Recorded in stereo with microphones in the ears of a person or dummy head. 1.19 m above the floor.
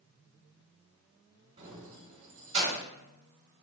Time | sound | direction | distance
1.6 | keys jangling | 30° right (ahead or behind) | 2 m